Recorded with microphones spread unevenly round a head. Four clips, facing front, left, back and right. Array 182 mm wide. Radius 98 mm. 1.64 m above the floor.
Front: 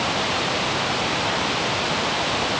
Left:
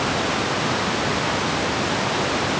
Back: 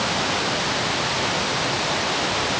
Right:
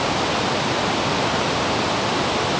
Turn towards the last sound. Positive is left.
No sound to turn to.